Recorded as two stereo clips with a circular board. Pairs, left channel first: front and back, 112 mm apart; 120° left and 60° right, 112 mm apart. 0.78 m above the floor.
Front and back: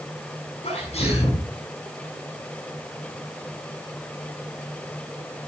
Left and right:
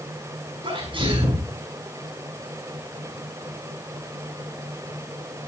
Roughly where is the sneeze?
Ahead.